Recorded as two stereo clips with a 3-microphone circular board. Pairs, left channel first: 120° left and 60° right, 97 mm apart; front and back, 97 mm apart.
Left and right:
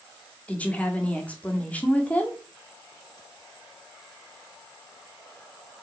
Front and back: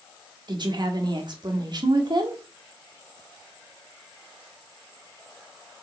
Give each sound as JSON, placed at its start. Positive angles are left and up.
{"t": 0.5, "sound": "a woman speaking", "azimuth_deg": -170, "distance_m": 1.6}